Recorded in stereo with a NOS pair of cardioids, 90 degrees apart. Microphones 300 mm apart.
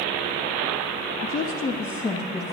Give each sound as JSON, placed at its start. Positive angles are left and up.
{"t": 1.2, "sound": "a woman speaking", "azimuth_deg": 35, "distance_m": 0.8}